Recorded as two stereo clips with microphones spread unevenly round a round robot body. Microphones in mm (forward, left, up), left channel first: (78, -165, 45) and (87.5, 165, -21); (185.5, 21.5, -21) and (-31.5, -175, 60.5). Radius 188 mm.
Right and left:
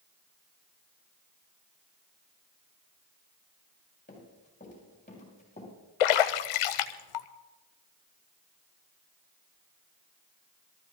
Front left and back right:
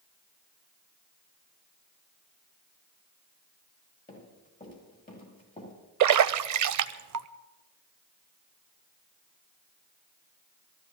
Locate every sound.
4.1 s running footsteps: 25° right, 8.5 m; by 5.7 s 20° right, 9 m
6.0 s a splash: 105° right, 0.7 m